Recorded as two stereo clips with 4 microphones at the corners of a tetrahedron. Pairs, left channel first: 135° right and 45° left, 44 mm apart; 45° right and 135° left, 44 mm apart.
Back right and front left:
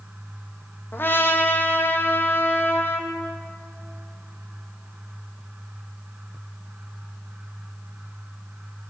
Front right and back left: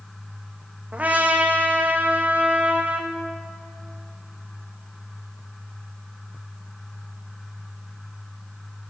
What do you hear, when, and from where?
0.9 s a trumpet: 170° right, 0.9 m